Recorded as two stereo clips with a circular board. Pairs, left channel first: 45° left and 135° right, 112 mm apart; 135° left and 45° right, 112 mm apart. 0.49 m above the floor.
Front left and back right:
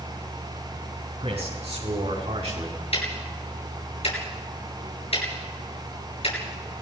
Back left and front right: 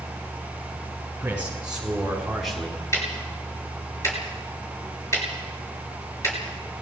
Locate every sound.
1.2 s a man speaking: 120° right, 6.5 m; by 2.8 s 140° right, 5 m
2.9 s ticking: 70° left, 6.5 m